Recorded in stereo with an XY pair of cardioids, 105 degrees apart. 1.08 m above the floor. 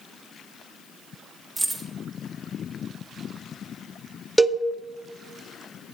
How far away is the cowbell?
About 0.7 m.